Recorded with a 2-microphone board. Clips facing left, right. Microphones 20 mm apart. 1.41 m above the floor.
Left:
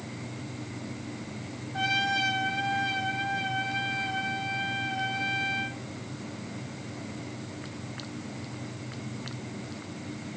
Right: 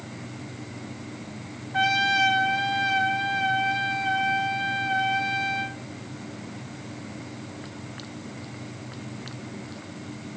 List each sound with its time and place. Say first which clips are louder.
1.7 s a trumpet: right 5 dB; 55° right (ahead or behind), 1.8 m